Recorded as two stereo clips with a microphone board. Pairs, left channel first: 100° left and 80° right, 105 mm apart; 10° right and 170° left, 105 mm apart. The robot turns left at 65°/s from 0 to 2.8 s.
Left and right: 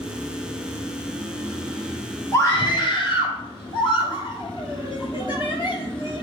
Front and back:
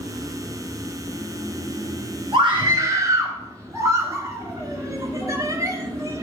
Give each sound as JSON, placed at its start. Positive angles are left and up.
{"t": 2.3, "sound": "a scream", "azimuth_deg": 150, "distance_m": 2.5}